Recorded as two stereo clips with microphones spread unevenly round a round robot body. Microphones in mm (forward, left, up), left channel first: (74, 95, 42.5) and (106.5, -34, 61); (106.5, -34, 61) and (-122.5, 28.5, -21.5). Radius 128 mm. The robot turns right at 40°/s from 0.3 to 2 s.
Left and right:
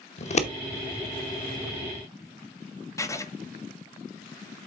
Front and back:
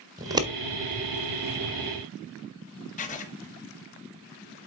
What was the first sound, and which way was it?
Scissors, 105° left.